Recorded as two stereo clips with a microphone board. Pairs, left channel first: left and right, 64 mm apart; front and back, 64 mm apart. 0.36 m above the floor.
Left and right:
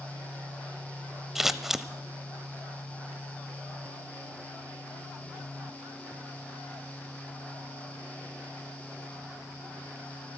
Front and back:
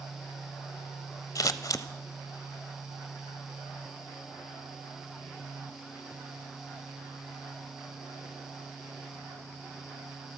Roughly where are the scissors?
Ahead.